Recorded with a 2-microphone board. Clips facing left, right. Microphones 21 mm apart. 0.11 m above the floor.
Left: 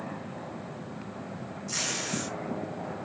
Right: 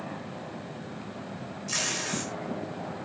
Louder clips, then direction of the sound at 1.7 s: Right 2 dB; 25° right (ahead or behind).